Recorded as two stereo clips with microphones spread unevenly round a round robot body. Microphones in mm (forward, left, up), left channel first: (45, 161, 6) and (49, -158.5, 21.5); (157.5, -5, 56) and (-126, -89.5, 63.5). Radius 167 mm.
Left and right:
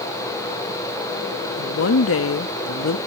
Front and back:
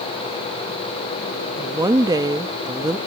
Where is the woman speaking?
120° left.